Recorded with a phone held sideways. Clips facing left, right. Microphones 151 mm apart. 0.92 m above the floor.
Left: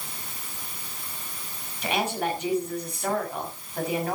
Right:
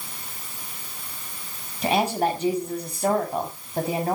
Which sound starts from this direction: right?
A woman speaking, at 1.8 s.